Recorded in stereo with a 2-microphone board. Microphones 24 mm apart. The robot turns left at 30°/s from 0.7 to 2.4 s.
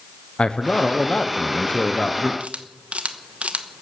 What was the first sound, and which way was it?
A man speaking, 115° left.